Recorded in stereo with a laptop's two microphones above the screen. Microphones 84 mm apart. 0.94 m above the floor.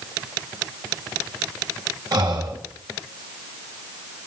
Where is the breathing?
65° right (ahead or behind), 2 m.